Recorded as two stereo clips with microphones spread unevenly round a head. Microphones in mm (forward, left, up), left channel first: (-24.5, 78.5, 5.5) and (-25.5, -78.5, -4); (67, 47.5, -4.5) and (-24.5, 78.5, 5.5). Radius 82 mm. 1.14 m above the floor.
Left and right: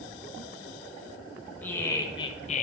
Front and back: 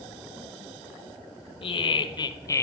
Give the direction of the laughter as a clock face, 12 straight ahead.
12 o'clock.